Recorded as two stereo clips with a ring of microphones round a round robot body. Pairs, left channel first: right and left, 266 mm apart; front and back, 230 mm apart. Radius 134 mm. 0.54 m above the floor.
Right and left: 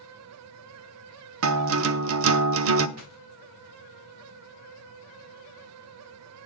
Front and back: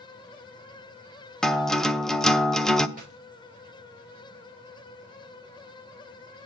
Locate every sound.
1.4 s a guitar: 85° left, 0.7 m
3.0 s a dropped coin: 125° left, 3.5 m